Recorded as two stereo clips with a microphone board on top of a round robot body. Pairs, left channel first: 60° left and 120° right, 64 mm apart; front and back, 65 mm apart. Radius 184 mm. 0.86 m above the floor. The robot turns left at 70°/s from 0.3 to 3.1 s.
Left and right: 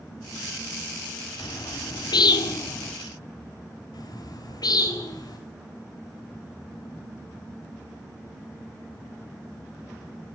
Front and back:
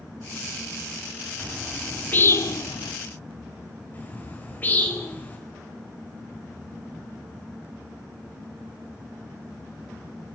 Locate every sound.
1.4 s a bird: 115° left, 1.1 m; by 2.9 s 10° left, 1.1 m
3.9 s a bird: 65° left, 4.5 m